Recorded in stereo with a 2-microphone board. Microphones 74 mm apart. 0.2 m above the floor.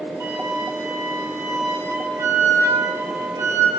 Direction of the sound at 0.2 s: 40° right (ahead or behind).